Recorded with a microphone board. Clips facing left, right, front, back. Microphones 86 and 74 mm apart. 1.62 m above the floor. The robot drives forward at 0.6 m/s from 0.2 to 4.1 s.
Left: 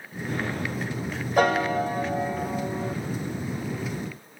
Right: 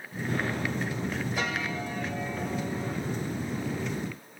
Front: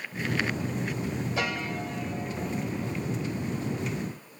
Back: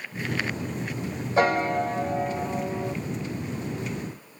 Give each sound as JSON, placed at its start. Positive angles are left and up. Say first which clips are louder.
{"t": 1.4, "sound": "a piano", "louder": "left 10 dB, back 14 dB", "azimuth_deg": 130}